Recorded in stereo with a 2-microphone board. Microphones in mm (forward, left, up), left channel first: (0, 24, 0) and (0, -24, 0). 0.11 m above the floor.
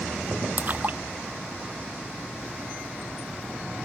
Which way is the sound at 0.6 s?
40° right (ahead or behind).